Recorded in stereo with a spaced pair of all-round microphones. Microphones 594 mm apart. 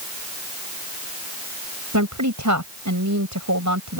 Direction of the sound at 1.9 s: 30° right (ahead or behind).